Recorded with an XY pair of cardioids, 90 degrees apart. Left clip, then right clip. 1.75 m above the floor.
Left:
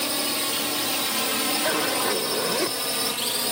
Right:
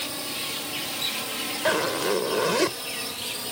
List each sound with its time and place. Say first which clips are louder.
0.0 s a drone: left 5 dB; 55° left; by 3.5 s 60° left
1.6 s a zipper: right 4 dB; 30° right